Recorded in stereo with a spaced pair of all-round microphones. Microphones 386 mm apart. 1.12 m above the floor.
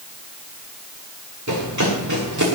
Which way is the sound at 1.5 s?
45° right (ahead or behind).